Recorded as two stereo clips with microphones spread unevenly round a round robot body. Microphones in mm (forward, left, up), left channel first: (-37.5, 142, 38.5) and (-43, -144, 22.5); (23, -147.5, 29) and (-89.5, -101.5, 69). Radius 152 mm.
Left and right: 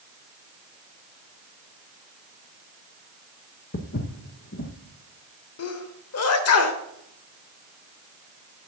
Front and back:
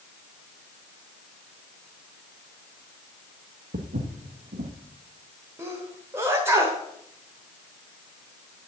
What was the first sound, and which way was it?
Footsteps, 140° left.